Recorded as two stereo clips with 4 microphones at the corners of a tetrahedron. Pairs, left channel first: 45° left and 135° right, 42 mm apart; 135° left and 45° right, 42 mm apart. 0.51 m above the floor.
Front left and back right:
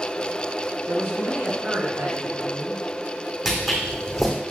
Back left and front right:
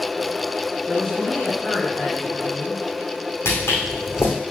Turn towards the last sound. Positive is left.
turn(degrees=140)